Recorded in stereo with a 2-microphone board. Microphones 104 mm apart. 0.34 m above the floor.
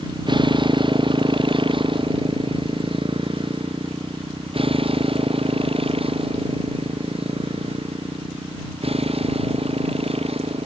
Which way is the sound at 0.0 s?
45° right (ahead or behind).